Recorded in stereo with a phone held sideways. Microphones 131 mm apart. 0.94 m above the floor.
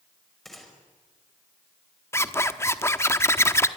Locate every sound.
0.5 s a gunshot: centre (ahead or behind), 5.5 m
2.1 s a zipper: 20° left (ahead or behind), 1.0 m